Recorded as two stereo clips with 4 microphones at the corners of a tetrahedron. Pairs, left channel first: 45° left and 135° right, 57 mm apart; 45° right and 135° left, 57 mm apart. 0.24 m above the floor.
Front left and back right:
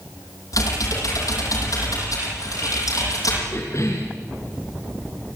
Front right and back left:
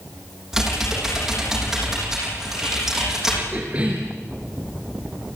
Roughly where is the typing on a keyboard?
Ahead left.